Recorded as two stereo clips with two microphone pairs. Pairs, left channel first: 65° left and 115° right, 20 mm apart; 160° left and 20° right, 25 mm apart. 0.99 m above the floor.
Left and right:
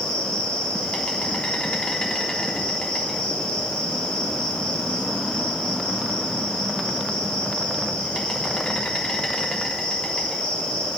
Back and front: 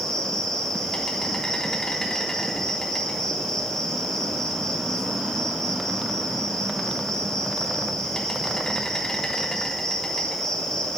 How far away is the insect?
About 3.5 m.